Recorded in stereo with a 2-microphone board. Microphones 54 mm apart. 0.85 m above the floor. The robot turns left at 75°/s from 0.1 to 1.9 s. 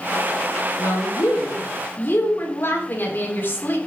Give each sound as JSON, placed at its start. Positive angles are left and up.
{"t": 0.8, "sound": "a woman speaking", "azimuth_deg": 120, "distance_m": 2.0}